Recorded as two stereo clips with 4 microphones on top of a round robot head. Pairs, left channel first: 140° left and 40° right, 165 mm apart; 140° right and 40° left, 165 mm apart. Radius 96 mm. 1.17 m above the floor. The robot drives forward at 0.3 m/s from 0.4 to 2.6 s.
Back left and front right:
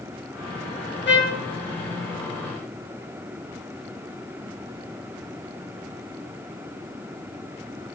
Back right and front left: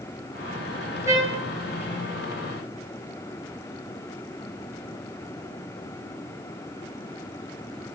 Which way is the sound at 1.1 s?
115° left.